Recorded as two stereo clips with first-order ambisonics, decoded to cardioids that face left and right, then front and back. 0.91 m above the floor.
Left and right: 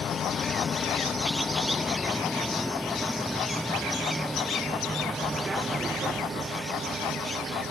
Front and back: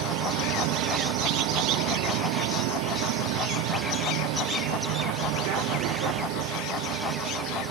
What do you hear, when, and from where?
0.0 s a vehicle: 155° left; by 7.7 s 155° right